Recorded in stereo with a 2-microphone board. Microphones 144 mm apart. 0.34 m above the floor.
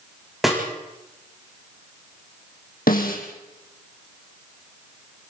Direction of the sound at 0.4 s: Centre (ahead or behind).